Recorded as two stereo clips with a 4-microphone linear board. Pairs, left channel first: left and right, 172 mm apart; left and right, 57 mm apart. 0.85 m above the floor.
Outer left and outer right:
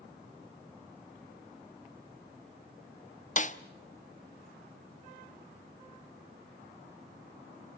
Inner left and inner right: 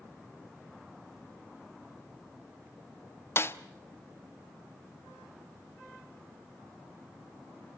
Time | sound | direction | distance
3.4 | a snare drum | 45° left (ahead or behind) | 1.0 m